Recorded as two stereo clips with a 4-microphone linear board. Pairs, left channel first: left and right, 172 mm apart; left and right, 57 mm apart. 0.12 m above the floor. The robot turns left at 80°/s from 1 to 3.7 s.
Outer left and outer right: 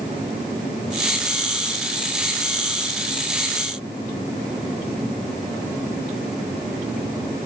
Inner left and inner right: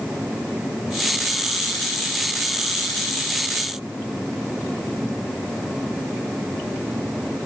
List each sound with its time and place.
Only background noise.